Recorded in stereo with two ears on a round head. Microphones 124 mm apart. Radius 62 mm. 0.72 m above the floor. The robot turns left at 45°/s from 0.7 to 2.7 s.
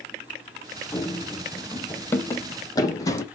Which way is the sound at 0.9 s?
20° left (ahead or behind).